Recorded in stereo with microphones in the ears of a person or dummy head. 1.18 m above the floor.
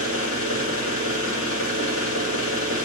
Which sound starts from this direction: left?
An engine running, at 0.0 s.